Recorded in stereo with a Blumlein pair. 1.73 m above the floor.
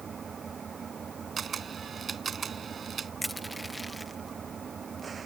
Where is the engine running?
20° right.